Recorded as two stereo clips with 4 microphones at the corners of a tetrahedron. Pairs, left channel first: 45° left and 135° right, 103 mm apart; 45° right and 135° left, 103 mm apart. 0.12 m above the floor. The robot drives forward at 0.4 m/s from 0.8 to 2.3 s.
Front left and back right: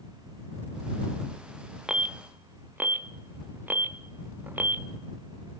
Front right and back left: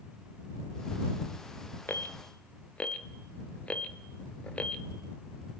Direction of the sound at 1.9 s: 70° right.